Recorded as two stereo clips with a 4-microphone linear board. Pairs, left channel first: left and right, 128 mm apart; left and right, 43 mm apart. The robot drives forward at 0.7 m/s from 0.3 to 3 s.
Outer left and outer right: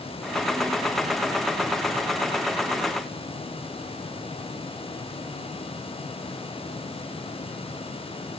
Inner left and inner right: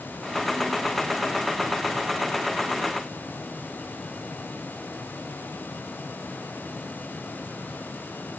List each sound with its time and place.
Only background noise.